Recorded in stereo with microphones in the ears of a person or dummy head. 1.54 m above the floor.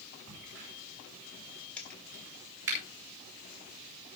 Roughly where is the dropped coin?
Centre.